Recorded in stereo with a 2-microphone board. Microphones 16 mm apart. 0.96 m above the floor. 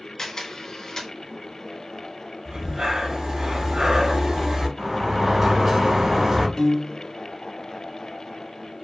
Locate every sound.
0.2 s a camera shutter: 60° left (ahead or behind), 1.5 m
2.5 s breathing: 60° right (ahead or behind), 2 m
4.8 s a sliding door: 35° right (ahead or behind), 1.8 m
6.6 s a piano: 40° left (ahead or behind), 0.7 m